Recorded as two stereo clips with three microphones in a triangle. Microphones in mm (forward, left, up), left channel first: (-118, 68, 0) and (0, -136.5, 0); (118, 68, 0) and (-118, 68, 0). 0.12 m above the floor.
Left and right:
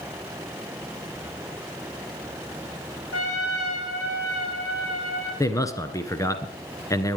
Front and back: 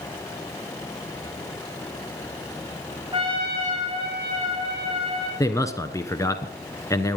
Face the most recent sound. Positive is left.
turn(degrees=60)